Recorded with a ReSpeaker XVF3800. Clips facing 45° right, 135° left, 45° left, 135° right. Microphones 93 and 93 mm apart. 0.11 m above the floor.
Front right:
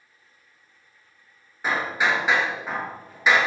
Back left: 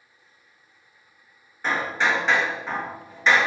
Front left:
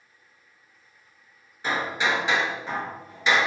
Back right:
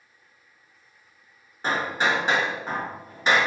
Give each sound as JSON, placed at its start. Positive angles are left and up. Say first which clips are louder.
{"t": 1.6, "sound": "hammering", "louder": "even, back right 1 dB", "azimuth_deg": -125, "distance_m": 0.5}